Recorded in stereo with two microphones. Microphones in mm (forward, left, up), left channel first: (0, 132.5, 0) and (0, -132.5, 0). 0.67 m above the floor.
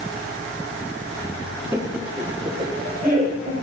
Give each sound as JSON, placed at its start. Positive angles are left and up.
{"t": 1.7, "sound": "laughter", "side_deg": -10, "distance_m": 1.1}